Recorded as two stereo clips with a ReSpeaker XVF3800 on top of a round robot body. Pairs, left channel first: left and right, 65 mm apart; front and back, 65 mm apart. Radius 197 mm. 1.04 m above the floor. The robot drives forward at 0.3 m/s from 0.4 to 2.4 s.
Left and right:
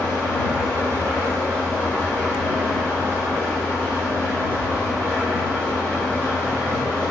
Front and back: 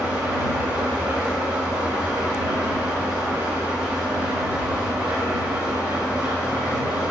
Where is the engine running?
155° left, 1.6 m; by 7.1 s 160° left, 2 m.